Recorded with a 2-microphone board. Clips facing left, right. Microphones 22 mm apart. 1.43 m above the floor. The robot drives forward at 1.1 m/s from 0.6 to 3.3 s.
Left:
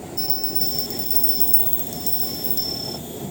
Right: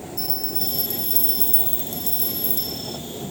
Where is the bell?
20° left (ahead or behind); by 3.0 s 25° left (ahead or behind).